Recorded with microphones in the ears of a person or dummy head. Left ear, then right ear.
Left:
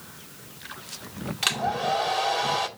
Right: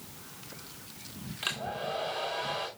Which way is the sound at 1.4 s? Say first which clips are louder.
Left 9 dB; 25° left (ahead or behind).